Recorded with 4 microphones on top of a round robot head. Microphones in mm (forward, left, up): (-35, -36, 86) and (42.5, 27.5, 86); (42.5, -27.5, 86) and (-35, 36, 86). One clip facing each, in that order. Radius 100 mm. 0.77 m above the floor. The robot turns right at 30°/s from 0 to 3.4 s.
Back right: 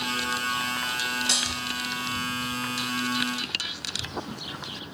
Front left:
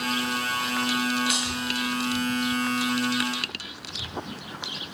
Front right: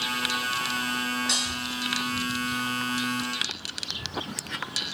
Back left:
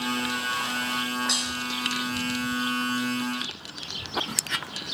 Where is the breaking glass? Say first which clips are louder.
Front left 3 dB, even; 130° right, 2 m; by 1.5 s 125° right, 2 m.